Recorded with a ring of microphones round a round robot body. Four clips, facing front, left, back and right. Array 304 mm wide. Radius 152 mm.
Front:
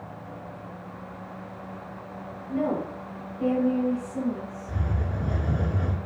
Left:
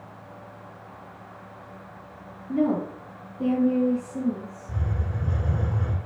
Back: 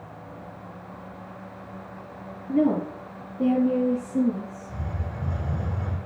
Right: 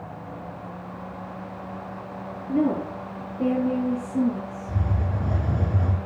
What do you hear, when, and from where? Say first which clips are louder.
2.5 s a woman speaking: right 1 dB, back 5 dB; 130° right, 8.5 m
4.7 s a hiss: right 3 dB, front 3 dB; 55° right, 3.5 m